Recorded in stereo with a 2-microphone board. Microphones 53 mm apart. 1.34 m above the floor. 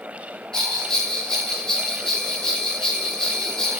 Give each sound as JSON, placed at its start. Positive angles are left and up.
{"t": 0.5, "sound": "a bell", "side_deg": 10, "distance_m": 1.0}